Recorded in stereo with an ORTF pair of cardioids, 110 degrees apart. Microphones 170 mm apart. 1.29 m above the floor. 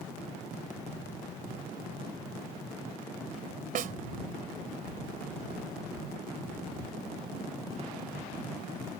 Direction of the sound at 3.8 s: 60° right.